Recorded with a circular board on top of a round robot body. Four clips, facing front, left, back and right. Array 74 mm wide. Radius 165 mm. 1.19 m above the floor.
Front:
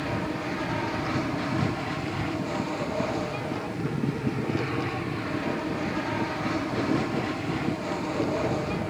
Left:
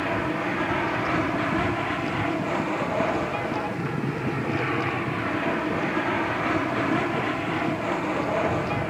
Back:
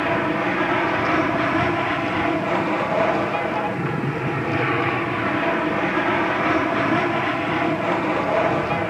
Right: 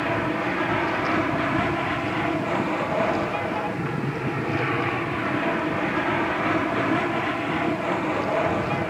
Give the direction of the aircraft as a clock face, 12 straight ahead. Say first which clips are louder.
Right 2 dB, back 9 dB; 6 o'clock.